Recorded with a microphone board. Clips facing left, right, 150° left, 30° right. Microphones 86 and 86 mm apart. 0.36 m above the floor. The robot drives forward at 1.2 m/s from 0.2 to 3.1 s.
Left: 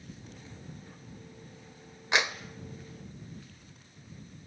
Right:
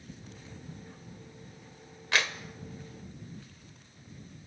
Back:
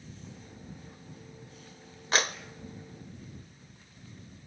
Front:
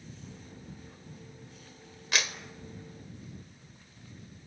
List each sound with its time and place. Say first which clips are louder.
2.1 s a clap: left 2 dB, back 4 dB; 145° left, 0.8 m; by 2.4 s 160° left, 1.0 m